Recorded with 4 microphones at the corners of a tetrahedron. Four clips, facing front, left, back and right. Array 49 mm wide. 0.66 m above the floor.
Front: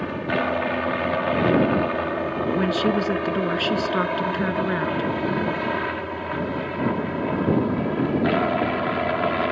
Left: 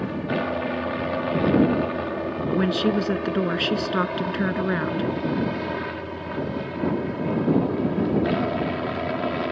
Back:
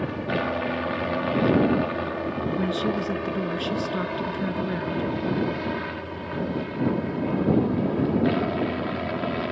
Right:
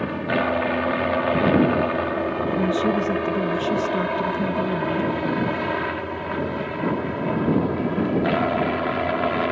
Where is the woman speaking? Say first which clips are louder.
Left 1 dB, front 5 dB; 55° left.